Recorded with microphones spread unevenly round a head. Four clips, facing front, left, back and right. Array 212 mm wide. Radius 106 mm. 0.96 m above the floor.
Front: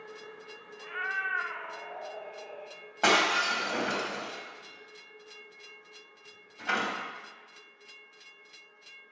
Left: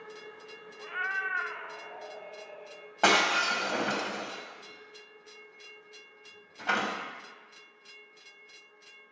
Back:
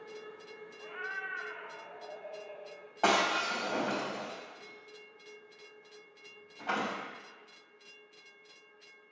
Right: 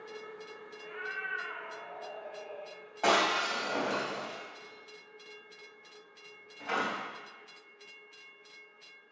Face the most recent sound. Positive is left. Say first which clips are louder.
# left 2 dB, front 2 dB
turn(degrees=55)